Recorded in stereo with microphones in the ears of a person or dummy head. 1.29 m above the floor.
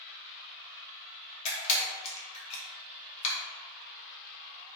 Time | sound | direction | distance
1.4 | a camera shutter | 35° left (ahead or behind) | 0.7 m